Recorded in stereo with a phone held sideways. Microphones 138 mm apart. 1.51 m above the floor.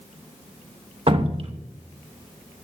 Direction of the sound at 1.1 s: 45° right (ahead or behind).